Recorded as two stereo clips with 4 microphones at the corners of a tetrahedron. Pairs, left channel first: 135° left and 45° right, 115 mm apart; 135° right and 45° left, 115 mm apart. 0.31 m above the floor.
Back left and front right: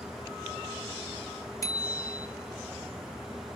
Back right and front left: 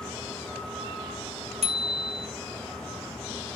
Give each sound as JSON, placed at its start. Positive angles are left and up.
{"t": 1.6, "sound": "a bicycle bell", "azimuth_deg": 75, "distance_m": 3.0}